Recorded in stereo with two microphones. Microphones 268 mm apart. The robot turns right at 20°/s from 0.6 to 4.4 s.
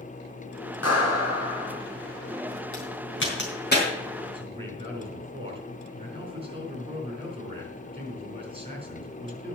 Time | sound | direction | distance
0.8 | a clap | 70° left (ahead or behind) | 3.5 m
2.7 | a crack | 55° left (ahead or behind) | 4 m
4.3 | a man speaking | 20° right (ahead or behind) | 4.5 m